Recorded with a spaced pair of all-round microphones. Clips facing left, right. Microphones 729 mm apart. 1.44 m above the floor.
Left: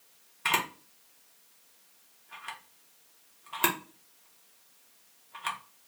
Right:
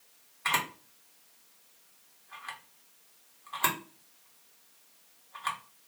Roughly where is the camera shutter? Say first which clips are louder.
Left 3 dB; left.